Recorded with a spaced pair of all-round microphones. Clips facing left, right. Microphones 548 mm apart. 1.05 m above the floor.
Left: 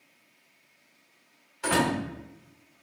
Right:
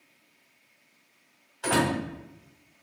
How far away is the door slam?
About 2.0 m.